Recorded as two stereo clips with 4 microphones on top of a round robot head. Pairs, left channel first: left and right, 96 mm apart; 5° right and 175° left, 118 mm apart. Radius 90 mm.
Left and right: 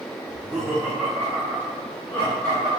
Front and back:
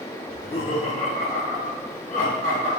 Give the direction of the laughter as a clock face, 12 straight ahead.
1 o'clock.